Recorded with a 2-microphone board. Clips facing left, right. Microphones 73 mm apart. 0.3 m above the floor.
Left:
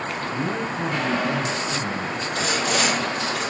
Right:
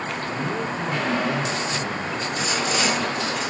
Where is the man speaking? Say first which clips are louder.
Left 1 dB; 40° left (ahead or behind), 3.5 m.